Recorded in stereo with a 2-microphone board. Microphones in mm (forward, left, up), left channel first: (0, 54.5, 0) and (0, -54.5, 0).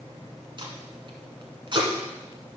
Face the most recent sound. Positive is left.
turn(degrees=-45)  # may be behind; listen again after turning